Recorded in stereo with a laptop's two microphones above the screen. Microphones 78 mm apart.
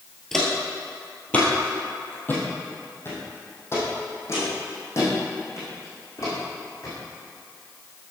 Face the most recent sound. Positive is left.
turn(degrees=40)  # may be behind; listen again after turning